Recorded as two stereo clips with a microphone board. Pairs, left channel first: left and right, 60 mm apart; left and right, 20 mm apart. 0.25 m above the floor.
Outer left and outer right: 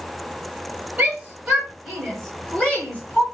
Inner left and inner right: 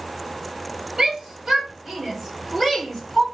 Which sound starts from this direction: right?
A shout, at 1.0 s.